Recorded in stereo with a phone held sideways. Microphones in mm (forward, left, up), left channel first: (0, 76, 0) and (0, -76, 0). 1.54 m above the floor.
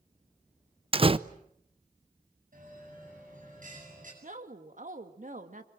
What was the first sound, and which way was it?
A door slam, 35° right (ahead or behind).